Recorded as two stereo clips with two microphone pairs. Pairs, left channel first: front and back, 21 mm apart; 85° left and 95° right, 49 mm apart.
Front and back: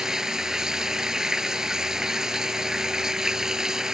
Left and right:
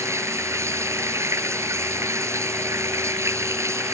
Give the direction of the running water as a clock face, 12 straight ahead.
4 o'clock.